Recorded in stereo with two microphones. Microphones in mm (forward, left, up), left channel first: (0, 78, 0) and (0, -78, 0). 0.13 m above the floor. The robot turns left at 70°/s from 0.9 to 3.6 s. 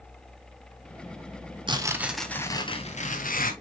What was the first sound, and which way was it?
Tearing paper, 145° right.